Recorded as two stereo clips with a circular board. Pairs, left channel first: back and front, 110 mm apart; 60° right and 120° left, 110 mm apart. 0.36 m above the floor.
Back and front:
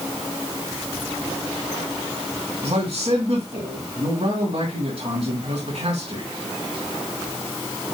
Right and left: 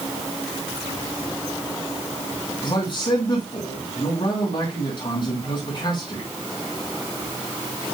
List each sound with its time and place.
2.6 s a man speaking: 30° right, 3 m